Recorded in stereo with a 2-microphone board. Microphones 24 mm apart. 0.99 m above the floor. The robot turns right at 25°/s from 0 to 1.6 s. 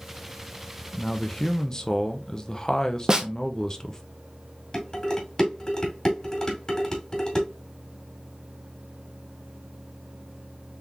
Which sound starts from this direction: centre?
A man speaking, at 0.9 s.